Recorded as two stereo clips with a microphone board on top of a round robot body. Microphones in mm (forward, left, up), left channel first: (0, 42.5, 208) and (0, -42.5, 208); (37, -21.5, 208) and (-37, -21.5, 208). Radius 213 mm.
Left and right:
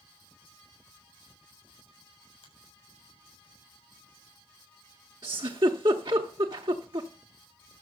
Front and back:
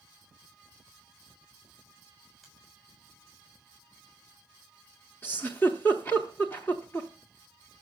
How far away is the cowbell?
I don't hear a cowbell.